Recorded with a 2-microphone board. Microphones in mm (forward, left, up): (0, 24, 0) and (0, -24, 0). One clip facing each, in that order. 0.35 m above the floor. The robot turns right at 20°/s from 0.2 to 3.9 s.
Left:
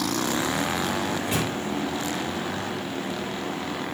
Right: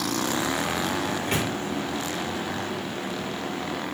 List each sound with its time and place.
1.1 s a microwave: 45° right (ahead or behind), 3.5 m; by 1.5 s 40° right (ahead or behind), 3.5 m